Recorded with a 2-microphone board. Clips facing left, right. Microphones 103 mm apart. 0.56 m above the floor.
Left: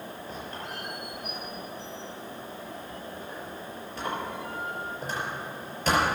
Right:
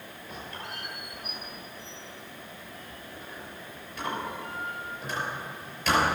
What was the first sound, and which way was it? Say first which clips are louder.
A squeak: even; 40° left (ahead or behind).